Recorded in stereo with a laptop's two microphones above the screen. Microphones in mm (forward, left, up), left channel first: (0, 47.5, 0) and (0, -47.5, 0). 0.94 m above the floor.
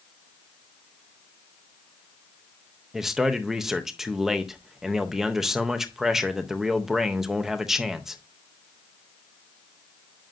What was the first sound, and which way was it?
A man speaking, 5° right (ahead or behind).